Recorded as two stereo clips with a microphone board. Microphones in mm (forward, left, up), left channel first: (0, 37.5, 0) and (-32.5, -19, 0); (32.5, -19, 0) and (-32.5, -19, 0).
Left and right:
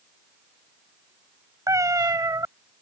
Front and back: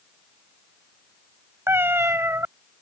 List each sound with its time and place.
1.7 s a cat meowing: 135° right